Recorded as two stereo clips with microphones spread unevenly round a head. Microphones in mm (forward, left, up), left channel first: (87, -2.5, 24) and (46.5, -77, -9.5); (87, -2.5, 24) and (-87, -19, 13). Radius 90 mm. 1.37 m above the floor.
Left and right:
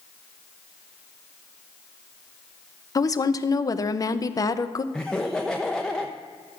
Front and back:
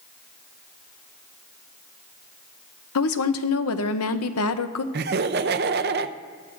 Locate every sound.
3.0 s a woman speaking: 15° left, 0.7 m
4.9 s laughter: 145° left, 0.5 m